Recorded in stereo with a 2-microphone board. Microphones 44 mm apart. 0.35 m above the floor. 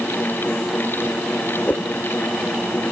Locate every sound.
1.7 s a whoosh: 45° left (ahead or behind)